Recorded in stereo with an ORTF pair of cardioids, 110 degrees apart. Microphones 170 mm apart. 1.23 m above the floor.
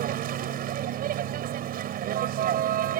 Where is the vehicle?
65° right.